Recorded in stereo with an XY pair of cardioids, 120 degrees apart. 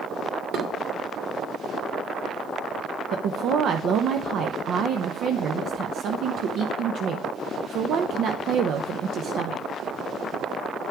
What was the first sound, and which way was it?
Dishes clattering, 70° right.